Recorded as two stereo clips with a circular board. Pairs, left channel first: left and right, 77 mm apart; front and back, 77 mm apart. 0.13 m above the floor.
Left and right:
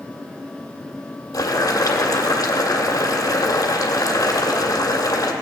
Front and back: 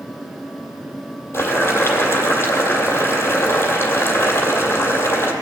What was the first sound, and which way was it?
Boiling, 55° left.